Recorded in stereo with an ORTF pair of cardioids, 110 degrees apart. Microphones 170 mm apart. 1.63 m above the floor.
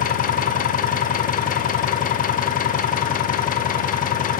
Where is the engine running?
55° left, 0.7 m.